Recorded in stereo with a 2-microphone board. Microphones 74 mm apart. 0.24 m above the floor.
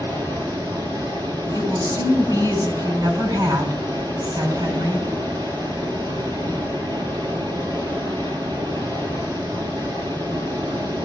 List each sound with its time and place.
0.0 s running water: 70° right (ahead or behind), 2.5 m
1.6 s a woman speaking: 60° right (ahead or behind), 3 m